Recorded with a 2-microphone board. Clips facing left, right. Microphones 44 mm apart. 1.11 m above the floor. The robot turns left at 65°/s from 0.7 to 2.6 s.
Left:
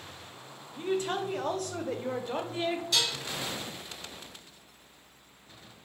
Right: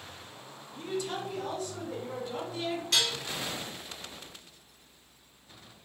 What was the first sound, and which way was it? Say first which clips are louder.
A woman speaking: left 4 dB; 155° left.